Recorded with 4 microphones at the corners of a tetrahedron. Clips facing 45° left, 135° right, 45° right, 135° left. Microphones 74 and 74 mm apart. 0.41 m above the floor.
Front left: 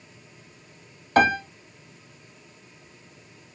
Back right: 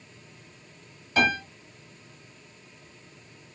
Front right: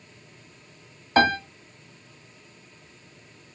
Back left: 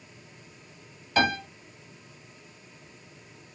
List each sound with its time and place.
1.2 s a piano: 5° left, 1.2 m